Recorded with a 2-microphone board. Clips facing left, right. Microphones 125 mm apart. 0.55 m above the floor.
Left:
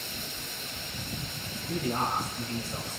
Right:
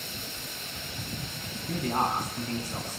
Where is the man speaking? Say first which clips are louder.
Right 2 dB; 50° right (ahead or behind), 5 m; by 3.0 s 40° right (ahead or behind), 5.5 m.